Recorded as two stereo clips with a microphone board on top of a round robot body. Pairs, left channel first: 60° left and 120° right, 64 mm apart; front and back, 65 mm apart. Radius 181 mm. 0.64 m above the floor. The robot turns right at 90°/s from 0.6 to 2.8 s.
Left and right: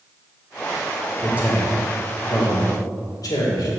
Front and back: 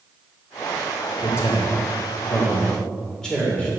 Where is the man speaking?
65° right, 3 m; by 3.7 s 75° left, 3 m.